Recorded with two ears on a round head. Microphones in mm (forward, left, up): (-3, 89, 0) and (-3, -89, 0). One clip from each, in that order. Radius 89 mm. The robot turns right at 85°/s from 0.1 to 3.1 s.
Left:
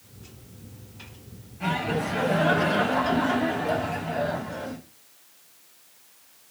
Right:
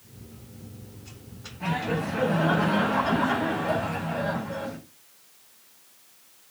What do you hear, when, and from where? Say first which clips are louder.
1.6 s laughter: left 2 dB; 40° left, 4.5 m; by 4.8 s 170° left, 4.5 m